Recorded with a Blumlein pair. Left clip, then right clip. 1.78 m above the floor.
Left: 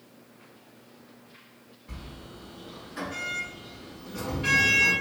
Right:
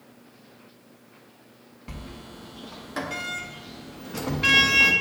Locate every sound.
1.9 s a sliding door: 40° right, 0.8 m